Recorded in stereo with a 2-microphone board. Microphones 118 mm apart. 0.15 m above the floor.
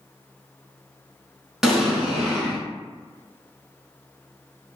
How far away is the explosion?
About 0.8 m.